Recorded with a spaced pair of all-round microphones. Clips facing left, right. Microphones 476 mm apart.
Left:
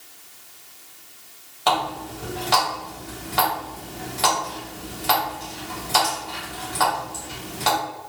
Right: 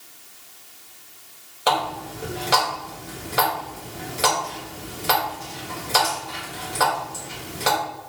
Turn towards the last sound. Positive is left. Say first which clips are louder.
# right 1 dB
turn(degrees=15)  # may be behind; listen again after turning